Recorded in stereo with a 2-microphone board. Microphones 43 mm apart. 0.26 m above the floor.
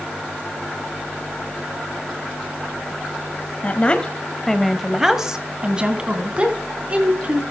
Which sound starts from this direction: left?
A woman speaking, at 3.6 s.